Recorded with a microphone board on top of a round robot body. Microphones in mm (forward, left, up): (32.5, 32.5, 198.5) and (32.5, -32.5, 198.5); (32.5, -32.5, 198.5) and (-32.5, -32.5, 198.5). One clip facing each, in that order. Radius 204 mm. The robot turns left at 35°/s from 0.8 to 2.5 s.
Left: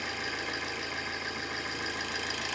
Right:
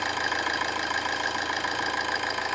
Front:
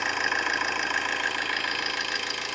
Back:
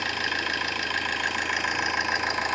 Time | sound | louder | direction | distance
0.0 | an engine running | right 8 dB, front 2 dB | 70° right | 2 m